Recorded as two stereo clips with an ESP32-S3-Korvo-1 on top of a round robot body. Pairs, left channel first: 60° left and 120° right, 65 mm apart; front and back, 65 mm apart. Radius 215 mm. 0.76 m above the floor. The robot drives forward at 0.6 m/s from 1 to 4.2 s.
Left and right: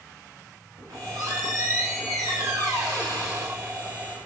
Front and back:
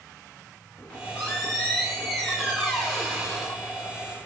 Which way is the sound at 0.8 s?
80° right.